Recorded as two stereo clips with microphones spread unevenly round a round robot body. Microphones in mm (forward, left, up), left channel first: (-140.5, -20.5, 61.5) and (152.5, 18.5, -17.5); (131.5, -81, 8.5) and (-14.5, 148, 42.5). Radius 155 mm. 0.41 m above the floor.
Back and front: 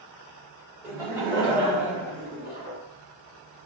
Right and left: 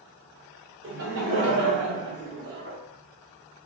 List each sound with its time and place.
0.8 s laughter: 90° left, 1.6 m; by 2.8 s 160° left, 1.4 m